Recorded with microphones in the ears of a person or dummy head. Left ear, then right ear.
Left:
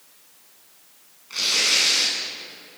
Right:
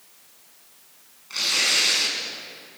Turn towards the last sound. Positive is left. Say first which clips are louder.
# left 1 dB
turn(degrees=-5)  # may be behind; listen again after turning